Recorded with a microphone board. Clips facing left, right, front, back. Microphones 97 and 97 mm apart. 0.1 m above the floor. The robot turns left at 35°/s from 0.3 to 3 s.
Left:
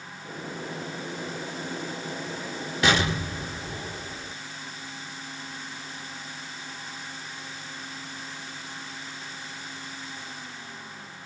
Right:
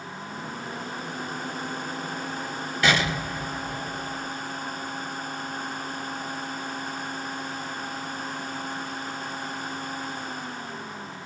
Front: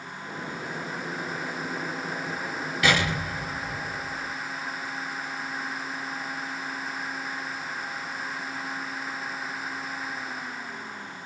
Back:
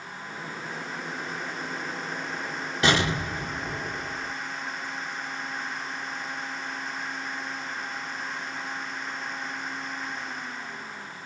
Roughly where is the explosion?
Behind left.